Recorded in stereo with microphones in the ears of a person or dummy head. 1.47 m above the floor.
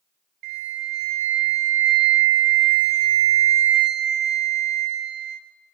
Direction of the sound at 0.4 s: 35° right (ahead or behind).